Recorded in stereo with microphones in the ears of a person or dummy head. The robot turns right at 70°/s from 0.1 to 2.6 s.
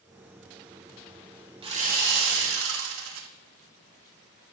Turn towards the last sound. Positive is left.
turn(degrees=-90)